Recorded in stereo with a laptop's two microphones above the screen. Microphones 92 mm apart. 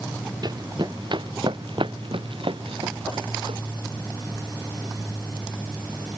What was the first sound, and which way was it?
Running footsteps, 50° right (ahead or behind).